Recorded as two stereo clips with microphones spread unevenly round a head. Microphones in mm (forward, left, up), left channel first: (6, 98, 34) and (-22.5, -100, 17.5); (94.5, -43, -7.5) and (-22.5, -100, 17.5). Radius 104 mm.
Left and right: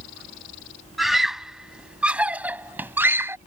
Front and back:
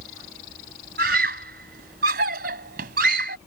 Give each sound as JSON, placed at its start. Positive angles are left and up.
{"t": 1.0, "sound": "a scream", "azimuth_deg": 175}